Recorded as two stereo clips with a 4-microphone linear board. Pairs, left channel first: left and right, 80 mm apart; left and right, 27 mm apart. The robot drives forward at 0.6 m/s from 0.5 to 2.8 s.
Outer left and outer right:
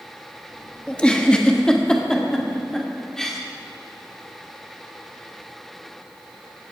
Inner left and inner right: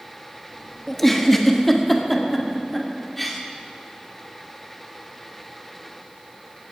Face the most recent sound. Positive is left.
turn(degrees=10)  # may be behind; listen again after turning